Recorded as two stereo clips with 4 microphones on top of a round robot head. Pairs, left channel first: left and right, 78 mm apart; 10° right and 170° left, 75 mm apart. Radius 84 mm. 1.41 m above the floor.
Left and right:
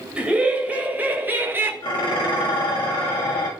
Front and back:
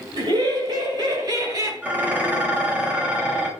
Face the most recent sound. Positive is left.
turn(degrees=105)